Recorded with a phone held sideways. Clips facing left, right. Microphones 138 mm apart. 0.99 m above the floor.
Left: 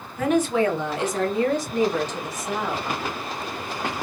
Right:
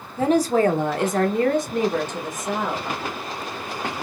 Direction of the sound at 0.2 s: 30° right (ahead or behind).